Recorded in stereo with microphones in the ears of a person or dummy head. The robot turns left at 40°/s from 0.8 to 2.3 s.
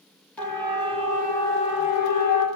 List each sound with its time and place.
0.4 s a siren: centre (ahead or behind), 4 m; by 2.5 s 55° left (ahead or behind), 6 m